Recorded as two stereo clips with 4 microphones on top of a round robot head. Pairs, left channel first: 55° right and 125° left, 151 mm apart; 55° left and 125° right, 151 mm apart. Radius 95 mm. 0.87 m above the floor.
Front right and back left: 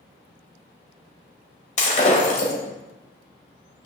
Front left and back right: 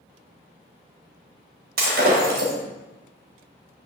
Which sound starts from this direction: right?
Breaking glass, at 1.8 s.